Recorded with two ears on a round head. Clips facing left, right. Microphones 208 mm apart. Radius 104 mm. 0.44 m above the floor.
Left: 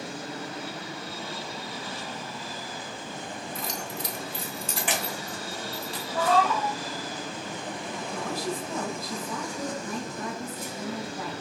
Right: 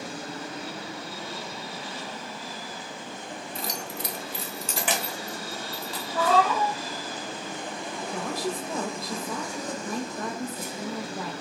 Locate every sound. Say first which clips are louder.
3.5 s keys jangling: right 2 dB; 25° right (ahead or behind), 0.6 m; by 6.0 s 70° right (ahead or behind), 2.0 m
6.1 s a cat meowing: right 1 dB; 60° right (ahead or behind), 1.6 m
8.1 s a woman speaking: right 1 dB; 40° right (ahead or behind), 1.7 m